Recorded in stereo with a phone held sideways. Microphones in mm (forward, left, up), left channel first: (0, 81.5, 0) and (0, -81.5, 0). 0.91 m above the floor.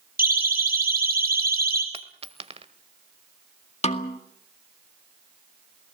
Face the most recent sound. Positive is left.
turn(degrees=40)  # may be behind; listen again after turning